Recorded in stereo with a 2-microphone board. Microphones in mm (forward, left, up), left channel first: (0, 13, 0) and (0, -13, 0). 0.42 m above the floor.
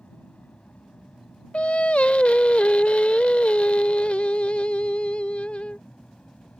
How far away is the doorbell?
I don't hear a doorbell.